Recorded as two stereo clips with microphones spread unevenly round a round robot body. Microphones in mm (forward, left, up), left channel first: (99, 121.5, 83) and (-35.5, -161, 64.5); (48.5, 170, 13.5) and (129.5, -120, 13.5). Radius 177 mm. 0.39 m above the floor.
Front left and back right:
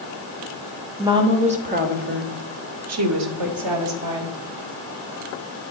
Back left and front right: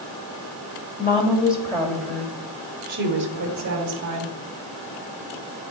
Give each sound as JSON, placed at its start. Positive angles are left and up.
{"t": 1.0, "sound": "a woman speaking", "azimuth_deg": 170, "distance_m": 1.6}